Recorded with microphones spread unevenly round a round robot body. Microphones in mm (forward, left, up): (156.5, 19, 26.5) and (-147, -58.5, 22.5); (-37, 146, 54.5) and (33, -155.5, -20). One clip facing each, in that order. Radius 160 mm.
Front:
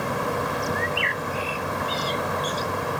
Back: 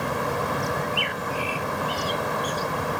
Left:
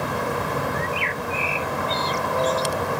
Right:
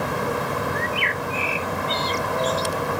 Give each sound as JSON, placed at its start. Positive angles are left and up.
{"t": 0.8, "sound": "a bird", "azimuth_deg": -50}